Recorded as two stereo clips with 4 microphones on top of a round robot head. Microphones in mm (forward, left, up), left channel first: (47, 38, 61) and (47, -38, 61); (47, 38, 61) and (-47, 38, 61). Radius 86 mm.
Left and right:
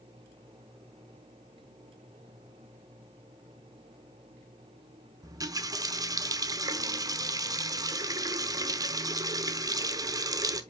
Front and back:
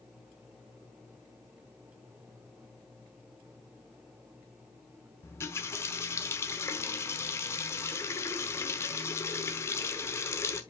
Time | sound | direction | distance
5.2 | a running tap | 60° right | 0.9 m